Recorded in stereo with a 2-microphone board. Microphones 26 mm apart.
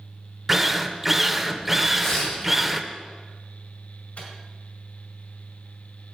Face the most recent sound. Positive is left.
turn(degrees=65)  # may be behind; listen again after turning